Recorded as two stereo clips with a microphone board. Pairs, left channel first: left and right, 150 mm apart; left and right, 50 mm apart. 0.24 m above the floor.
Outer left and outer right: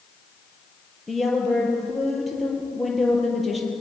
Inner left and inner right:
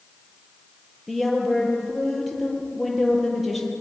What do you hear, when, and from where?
1.1 s a woman speaking: centre (ahead or behind), 5 m